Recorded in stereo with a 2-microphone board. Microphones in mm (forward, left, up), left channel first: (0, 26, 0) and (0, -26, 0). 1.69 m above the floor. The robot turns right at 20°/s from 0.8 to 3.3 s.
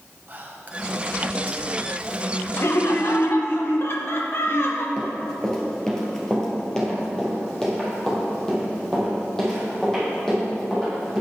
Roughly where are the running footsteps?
Centre.